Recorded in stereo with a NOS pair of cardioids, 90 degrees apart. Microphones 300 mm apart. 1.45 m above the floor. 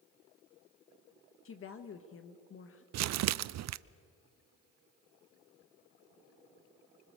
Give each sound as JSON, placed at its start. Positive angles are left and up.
{"t": 1.4, "sound": "a woman speaking", "azimuth_deg": 45, "distance_m": 1.6}
{"t": 2.9, "sound": "crumpling", "azimuth_deg": -65, "distance_m": 0.6}